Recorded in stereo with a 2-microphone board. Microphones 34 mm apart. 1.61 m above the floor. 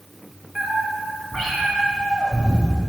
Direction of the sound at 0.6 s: 5° left (ahead or behind).